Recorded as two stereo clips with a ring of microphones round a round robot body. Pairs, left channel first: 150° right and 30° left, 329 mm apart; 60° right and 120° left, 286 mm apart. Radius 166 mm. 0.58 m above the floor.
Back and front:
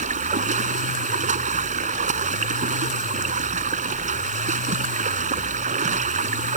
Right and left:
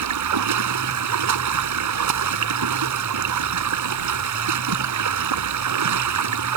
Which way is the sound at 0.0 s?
100° left.